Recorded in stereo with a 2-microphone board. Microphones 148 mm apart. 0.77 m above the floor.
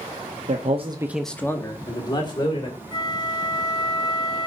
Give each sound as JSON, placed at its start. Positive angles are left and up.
{"t": 0.5, "sound": "a man speaking", "side_deg": -55, "distance_m": 0.9}
{"t": 2.9, "sound": "a flute", "side_deg": 30, "distance_m": 0.6}